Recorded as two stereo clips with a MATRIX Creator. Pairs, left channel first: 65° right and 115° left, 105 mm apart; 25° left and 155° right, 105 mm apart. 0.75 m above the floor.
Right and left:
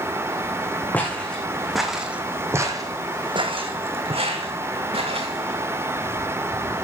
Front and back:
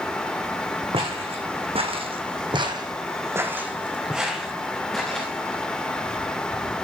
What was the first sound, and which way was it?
Footsteps, 140° right.